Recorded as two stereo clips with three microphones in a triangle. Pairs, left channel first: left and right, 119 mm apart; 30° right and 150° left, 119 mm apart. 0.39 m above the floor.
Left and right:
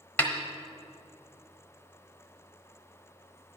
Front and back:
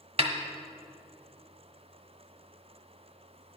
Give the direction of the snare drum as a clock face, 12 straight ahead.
6 o'clock.